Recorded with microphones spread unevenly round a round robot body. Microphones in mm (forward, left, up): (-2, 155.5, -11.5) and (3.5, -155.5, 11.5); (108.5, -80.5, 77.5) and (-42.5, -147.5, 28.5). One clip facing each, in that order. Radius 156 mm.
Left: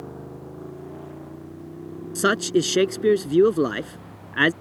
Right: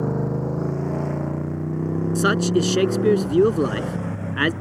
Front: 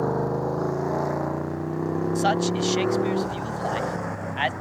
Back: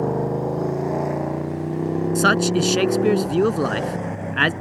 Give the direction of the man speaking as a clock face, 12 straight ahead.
6 o'clock.